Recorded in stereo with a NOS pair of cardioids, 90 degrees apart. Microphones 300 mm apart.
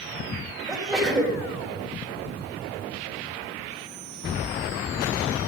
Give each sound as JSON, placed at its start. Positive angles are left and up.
{"t": 0.7, "sound": "a sneeze", "azimuth_deg": -10, "distance_m": 4.5}